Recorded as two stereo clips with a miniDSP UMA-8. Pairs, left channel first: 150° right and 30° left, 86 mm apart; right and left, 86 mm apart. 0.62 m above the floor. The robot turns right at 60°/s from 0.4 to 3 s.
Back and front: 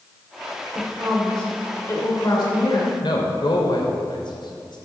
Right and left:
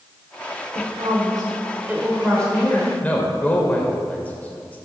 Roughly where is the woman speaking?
Left.